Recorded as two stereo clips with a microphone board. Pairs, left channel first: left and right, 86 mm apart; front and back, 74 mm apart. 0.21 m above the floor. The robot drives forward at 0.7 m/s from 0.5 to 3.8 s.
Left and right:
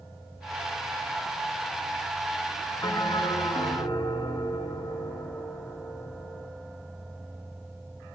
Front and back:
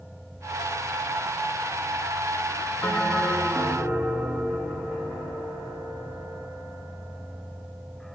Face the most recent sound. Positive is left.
turn(degrees=115)